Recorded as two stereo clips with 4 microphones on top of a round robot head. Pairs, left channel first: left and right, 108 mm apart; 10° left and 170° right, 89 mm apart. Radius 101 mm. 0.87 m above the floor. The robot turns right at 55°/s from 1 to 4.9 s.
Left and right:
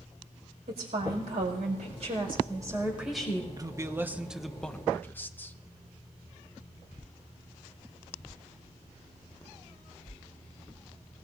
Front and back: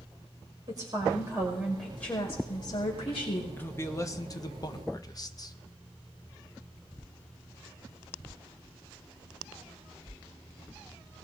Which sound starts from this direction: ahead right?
A man speaking, at 3.6 s.